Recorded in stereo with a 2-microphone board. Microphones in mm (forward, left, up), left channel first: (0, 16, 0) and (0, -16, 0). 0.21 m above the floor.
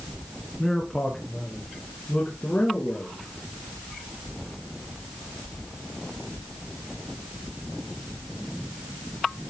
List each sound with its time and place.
0.6 s a man speaking: 15° left (ahead or behind), 3 m; by 3.3 s 55° left (ahead or behind), 3.5 m